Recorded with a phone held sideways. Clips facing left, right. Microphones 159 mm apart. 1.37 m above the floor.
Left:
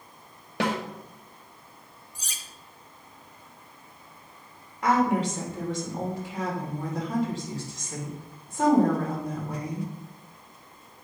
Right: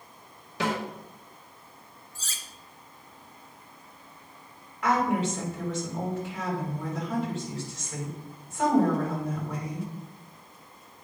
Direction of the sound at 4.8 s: 35° left (ahead or behind).